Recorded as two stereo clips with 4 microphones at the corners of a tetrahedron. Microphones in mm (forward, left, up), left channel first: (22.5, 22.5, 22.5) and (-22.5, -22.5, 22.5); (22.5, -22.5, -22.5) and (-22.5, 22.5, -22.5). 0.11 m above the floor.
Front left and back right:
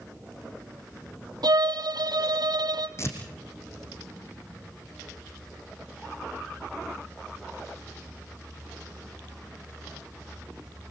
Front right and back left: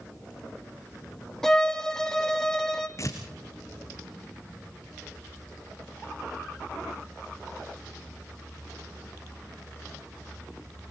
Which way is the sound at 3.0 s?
5° right.